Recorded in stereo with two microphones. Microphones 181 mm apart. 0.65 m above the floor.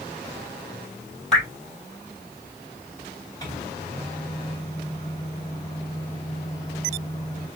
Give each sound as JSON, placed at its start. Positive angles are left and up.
{"t": 1.3, "sound": "dripping", "side_deg": 5, "distance_m": 4.5}
{"t": 3.4, "sound": "a microwave", "side_deg": 20, "distance_m": 2.5}